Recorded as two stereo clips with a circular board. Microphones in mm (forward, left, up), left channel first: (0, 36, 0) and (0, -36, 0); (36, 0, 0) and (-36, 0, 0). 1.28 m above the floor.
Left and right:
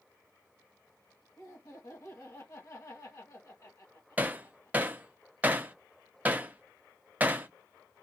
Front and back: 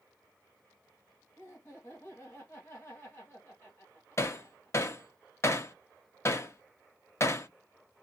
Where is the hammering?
30° right, 0.7 m.